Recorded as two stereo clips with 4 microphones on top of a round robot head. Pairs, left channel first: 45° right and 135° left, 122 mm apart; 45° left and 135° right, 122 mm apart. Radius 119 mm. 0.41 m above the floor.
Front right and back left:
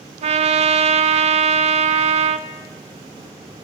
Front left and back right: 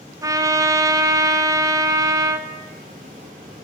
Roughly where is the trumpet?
Behind.